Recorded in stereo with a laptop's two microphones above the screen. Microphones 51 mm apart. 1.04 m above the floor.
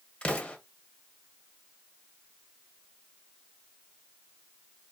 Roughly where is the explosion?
Left.